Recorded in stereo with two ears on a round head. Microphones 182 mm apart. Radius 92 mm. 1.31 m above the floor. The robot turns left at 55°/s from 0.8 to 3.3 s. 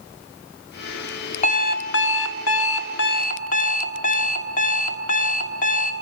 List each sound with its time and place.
1.4 s an alarm clock: 145° left, 1.8 m; by 5.9 s 40° left, 1.8 m